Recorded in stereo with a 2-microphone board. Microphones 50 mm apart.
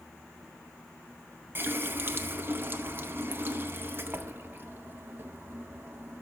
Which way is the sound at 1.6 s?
45° right (ahead or behind).